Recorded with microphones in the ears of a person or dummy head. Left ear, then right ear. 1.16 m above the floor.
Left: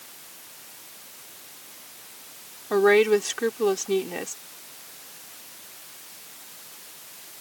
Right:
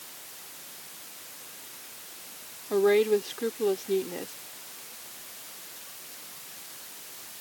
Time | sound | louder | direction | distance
2.7 | a woman speaking | left 4 dB | 55° left (ahead or behind) | ?